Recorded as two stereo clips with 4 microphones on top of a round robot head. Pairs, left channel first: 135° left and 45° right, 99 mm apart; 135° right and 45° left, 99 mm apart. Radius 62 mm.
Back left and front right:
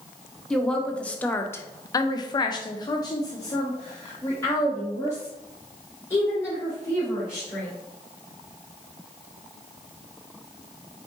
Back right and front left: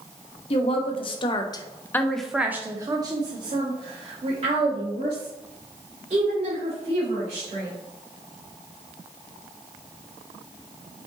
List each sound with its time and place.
0.5 s a woman speaking: 140° right, 1.0 m; by 7.7 s 65° left, 3 m